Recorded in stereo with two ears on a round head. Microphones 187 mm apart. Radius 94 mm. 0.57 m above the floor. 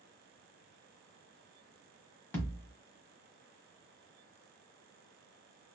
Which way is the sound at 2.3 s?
10° left (ahead or behind).